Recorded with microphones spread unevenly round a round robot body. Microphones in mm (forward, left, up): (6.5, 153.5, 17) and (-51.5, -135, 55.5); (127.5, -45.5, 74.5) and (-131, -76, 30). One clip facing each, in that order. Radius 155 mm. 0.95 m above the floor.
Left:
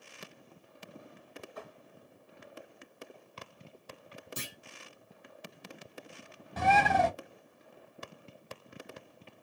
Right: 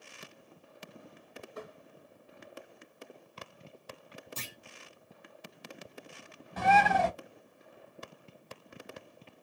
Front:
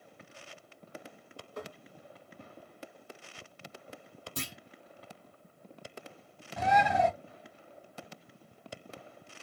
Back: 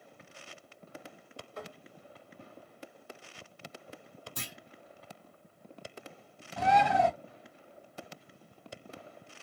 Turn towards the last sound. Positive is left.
turn(degrees=85)